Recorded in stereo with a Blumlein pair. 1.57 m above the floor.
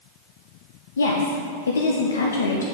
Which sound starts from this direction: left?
A woman speaking, at 1.0 s.